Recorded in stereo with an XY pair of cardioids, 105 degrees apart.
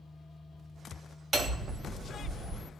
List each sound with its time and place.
0.0 s a machine running: 35° left, 1.1 m
1.3 s hammering: 35° right, 2.5 m